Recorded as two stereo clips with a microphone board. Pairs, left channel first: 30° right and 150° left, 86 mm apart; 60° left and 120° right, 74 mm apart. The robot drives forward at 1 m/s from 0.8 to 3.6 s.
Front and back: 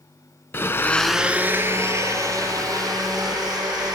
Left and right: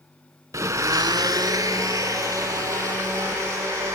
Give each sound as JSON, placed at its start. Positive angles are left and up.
{"t": 0.5, "sound": "a blender", "azimuth_deg": -90, "distance_m": 0.5}